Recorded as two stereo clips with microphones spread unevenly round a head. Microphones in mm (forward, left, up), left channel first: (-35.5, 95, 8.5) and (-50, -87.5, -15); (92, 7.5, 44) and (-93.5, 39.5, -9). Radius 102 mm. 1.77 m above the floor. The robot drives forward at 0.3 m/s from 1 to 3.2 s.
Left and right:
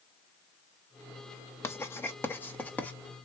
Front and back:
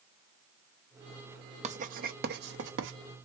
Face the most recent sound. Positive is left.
turn(degrees=160)